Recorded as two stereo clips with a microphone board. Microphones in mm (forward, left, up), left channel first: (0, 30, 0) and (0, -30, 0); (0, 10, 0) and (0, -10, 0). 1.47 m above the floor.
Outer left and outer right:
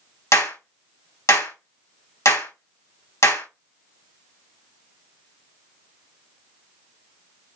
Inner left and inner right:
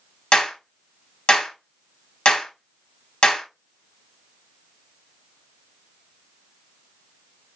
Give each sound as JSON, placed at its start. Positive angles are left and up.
{"t": 0.3, "sound": "a clap", "side_deg": 55, "distance_m": 1.8}